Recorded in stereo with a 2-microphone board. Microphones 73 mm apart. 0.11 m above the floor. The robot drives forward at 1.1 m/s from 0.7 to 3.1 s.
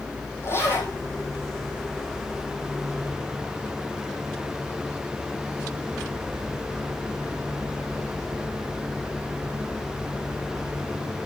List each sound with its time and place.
0.4 s a zipper: 35° left (ahead or behind), 4 m